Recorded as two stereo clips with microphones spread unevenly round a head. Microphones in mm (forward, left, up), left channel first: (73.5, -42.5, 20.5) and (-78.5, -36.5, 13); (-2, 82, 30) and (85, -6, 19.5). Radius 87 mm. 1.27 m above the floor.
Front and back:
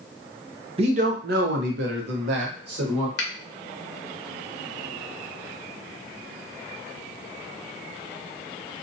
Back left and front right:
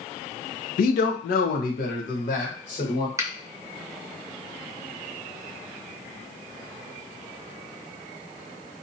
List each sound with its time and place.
0.8 s a man speaking: 120° left, 0.5 m; by 3.1 s 175° right, 1.3 m
3.2 s a finger snap: 20° left, 0.7 m